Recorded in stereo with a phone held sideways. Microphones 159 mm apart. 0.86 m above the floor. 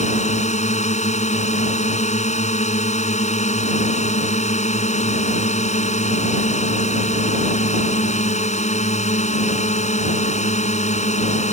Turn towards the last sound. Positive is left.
turn(degrees=45)  # may be behind; listen again after turning